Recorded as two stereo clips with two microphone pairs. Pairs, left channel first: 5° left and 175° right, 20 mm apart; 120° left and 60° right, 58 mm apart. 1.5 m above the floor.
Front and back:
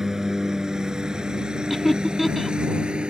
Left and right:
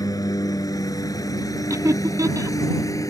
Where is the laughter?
85° right.